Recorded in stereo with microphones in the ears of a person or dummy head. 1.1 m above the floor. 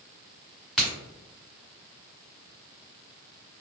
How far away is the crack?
About 1.6 m.